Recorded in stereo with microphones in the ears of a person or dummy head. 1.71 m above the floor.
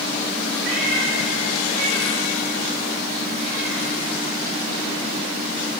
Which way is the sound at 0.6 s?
60° right (ahead or behind).